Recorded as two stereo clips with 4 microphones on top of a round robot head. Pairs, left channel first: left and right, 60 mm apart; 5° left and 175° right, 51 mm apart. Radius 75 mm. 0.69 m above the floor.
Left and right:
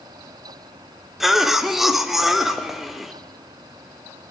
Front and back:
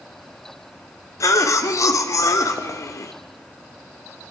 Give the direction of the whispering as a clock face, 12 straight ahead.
No whispering in this recording.